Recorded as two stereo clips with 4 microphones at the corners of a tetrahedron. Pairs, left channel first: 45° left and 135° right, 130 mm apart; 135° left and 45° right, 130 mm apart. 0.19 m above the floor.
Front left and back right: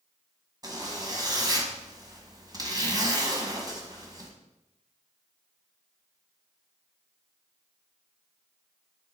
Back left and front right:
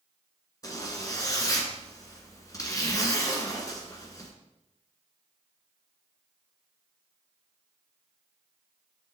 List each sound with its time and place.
0.6 s a zipper: straight behind, 1.5 m